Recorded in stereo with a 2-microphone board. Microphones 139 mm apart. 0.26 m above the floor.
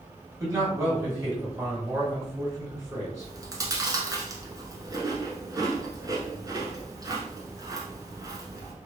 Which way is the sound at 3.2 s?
30° right (ahead or behind).